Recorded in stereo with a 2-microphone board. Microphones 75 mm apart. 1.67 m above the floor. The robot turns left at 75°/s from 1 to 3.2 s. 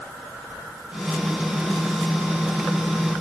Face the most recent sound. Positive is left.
No sound to turn to.